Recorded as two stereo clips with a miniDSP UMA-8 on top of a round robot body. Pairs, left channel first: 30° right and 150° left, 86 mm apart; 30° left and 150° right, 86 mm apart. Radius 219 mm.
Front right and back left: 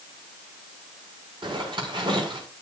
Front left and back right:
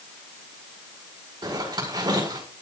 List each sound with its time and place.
1.4 s a zipper: 170° left, 7 m